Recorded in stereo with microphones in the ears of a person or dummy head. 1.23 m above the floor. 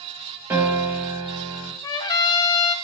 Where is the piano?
15° right (ahead or behind), 1.1 m.